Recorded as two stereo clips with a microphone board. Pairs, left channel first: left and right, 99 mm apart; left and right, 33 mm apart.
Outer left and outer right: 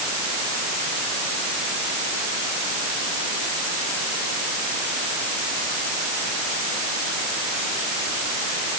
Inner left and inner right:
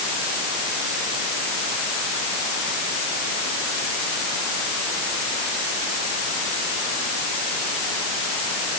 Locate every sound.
Only background noise.